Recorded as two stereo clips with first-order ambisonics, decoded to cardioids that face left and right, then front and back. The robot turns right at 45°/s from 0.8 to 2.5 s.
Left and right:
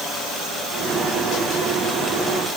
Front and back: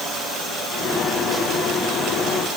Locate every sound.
Only background noise.